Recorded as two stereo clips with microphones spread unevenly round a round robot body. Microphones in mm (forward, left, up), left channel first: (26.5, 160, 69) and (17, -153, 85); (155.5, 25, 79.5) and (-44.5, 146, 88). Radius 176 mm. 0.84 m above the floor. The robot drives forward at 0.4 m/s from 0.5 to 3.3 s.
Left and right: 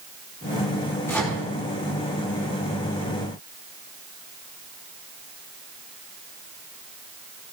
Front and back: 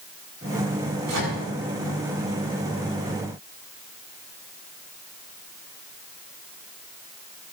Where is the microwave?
170° left, 7 m.